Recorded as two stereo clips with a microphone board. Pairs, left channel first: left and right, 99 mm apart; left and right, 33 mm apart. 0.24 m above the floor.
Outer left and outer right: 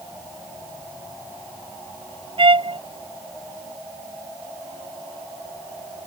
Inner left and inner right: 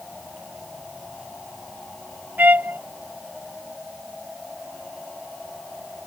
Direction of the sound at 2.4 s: 65° right (ahead or behind).